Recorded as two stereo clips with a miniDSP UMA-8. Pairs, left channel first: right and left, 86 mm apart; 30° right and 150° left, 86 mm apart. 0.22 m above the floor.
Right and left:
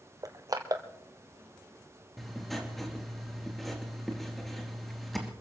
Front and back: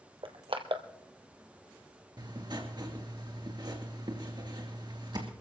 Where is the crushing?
135° left, 1.2 m.